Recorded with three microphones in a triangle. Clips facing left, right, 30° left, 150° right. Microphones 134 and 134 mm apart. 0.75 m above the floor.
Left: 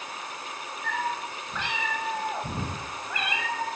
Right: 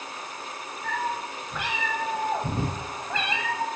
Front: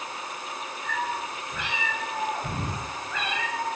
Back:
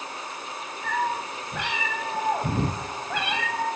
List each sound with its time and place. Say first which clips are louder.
0.8 s a cat meowing: right 1 dB, back 4 dB; 175° right, 3.5 m; by 3.7 s 145° right, 1.9 m